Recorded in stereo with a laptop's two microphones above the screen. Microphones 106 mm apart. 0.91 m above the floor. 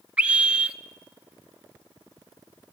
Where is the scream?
10° right (ahead or behind), 1.9 m.